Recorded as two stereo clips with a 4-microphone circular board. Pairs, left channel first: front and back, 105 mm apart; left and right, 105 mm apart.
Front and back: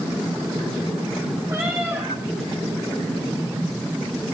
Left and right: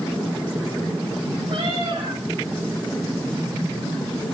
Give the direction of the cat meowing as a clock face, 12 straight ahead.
4 o'clock.